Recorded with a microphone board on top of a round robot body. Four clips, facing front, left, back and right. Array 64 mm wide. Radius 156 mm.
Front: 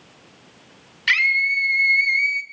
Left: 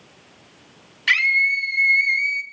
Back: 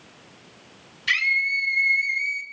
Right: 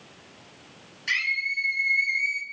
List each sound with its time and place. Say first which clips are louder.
1.1 s a scream: left 9 dB, front 4 dB; 45° left, 3.5 m; by 2.4 s 25° left, 1.9 m